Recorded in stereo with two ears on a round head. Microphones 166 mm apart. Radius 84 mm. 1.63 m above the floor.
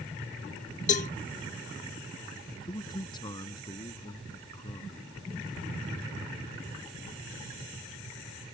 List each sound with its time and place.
0.9 s a cowbell: 40° left (ahead or behind)
2.6 s a man speaking: 25° left (ahead or behind)